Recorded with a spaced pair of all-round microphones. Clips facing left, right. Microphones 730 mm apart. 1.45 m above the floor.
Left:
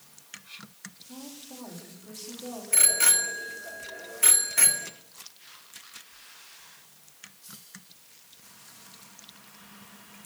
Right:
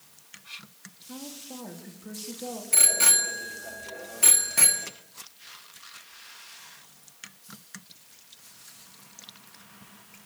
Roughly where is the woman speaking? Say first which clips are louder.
Right 3 dB; right.